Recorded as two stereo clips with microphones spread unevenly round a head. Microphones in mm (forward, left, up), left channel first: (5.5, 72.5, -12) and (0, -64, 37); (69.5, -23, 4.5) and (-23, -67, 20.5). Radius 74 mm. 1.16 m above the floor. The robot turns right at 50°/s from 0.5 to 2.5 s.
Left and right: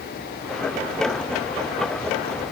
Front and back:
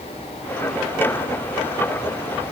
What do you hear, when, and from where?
Only background noise.